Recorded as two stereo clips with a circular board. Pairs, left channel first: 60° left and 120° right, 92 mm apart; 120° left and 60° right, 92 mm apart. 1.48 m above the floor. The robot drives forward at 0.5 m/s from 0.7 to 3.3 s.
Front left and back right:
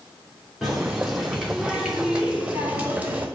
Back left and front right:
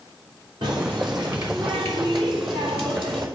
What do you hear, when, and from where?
0.6 s a running tap: 35° right, 3 m; by 3.3 s 50° right, 2 m